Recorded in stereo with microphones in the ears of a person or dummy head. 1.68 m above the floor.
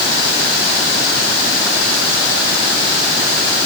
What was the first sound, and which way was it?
Only background noise.